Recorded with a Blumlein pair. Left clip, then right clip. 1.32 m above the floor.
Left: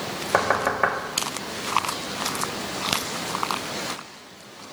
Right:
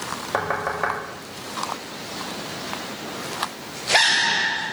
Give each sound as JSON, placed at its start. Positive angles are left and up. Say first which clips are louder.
{"t": 0.3, "sound": "knocking", "louder": "left 3 dB", "azimuth_deg": 15, "distance_m": 1.7}